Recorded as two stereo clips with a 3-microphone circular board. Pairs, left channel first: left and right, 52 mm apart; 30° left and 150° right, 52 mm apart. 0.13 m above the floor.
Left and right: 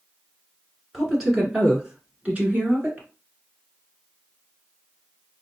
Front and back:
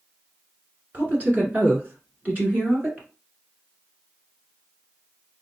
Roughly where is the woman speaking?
Behind.